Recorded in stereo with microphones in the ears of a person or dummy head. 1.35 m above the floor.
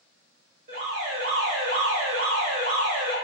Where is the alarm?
50° right (ahead or behind), 1.2 m.